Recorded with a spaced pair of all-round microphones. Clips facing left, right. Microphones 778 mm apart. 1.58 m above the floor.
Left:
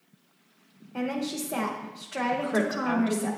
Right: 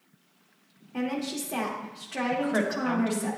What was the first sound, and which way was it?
A woman speaking, 35° right (ahead or behind).